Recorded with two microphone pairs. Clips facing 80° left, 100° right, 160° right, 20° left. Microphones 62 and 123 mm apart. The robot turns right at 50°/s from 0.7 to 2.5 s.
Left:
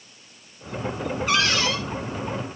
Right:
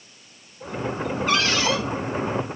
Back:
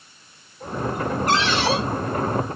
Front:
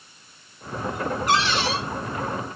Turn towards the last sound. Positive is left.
turn(degrees=-145)